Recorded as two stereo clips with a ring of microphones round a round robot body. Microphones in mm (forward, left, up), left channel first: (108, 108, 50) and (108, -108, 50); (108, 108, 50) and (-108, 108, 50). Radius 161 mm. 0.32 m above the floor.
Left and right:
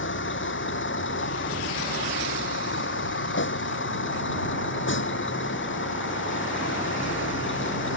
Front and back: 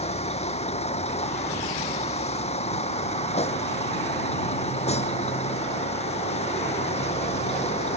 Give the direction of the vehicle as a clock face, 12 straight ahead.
10 o'clock.